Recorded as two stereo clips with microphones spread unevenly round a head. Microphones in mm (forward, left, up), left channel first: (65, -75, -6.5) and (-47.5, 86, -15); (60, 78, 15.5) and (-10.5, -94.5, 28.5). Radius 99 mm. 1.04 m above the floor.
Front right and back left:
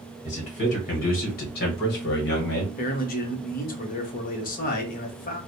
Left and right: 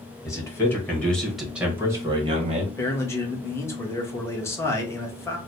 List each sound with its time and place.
0.2 s a man speaking: straight ahead, 1.8 m; by 2.7 s 70° right, 1.1 m
2.8 s a man speaking: 10° right, 1.0 m